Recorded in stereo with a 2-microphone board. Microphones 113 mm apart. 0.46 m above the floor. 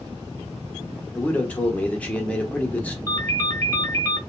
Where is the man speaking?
10° left (ahead or behind), 1.0 m.